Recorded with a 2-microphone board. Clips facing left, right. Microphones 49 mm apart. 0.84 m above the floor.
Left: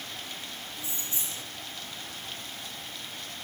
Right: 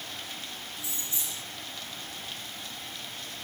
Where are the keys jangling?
30° left (ahead or behind), 2.5 m.